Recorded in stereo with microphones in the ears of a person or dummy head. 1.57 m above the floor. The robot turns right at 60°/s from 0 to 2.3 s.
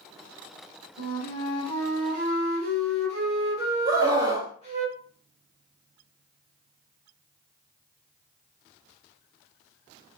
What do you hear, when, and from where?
1.0 s a flute: 140° left, 1.6 m; by 4.8 s 140° right, 1.6 m
3.9 s a scream: 20° right (ahead or behind), 0.6 m